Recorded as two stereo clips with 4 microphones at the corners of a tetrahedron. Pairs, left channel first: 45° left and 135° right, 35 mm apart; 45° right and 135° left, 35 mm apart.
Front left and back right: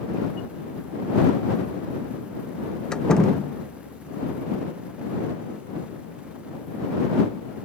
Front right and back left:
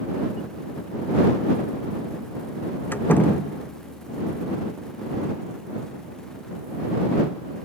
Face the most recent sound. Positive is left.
turn(degrees=-25)